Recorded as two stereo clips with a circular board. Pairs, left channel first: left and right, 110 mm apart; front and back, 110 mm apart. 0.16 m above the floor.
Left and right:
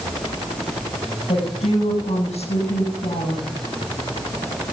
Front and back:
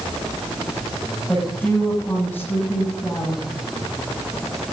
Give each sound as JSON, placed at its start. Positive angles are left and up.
{"t": 1.3, "sound": "a woman speaking", "azimuth_deg": 75, "distance_m": 7.0}